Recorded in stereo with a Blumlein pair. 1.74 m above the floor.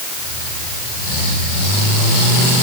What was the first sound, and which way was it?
Only background noise.